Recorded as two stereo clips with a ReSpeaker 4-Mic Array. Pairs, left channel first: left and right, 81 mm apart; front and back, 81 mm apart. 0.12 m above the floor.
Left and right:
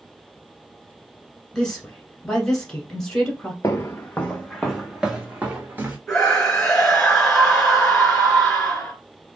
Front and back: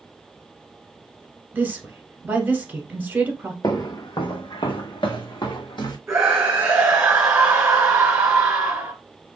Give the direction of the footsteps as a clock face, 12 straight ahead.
11 o'clock.